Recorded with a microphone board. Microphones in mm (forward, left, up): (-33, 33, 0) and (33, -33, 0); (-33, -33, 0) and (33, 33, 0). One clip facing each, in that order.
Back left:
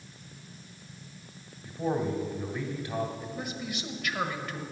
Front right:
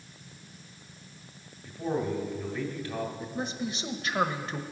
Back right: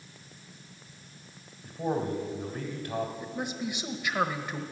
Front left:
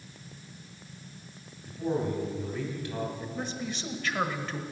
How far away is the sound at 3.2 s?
About 1.1 m.